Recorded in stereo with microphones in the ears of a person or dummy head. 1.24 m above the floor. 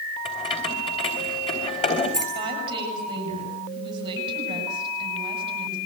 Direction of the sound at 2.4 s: 25° right (ahead or behind).